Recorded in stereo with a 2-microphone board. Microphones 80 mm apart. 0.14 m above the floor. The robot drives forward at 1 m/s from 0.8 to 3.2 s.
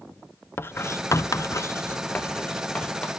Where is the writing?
30° left (ahead or behind), 0.8 m; by 3.1 s 15° left (ahead or behind), 1.9 m.